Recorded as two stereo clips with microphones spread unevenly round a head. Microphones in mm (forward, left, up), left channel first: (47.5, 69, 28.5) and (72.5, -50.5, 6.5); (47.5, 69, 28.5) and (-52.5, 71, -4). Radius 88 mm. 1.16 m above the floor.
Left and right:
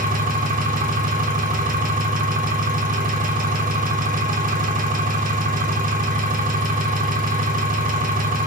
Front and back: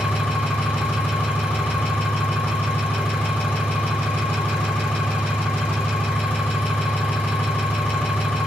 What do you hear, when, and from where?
0.0 s an engine running: 85° right, 3 m